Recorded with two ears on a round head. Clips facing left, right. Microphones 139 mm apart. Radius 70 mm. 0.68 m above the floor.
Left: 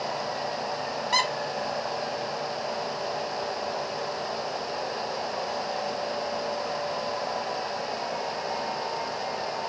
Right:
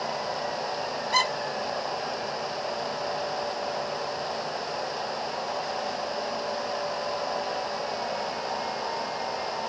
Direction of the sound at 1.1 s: 60° left (ahead or behind).